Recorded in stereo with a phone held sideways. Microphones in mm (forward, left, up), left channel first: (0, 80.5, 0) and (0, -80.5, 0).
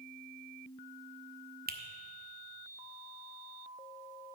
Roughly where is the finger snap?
Right.